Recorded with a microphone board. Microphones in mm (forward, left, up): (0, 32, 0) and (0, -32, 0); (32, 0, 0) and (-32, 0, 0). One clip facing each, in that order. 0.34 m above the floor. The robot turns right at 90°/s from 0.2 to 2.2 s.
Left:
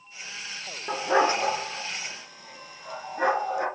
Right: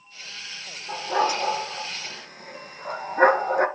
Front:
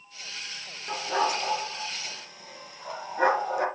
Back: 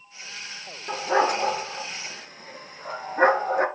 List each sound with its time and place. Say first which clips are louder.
0.9 s a dog barking: left 1 dB, back 5 dB; 110° left, 1.5 m; by 3.7 s 135° right, 1.5 m